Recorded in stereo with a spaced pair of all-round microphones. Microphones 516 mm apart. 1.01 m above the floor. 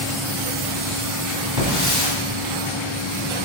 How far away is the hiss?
About 2.5 m.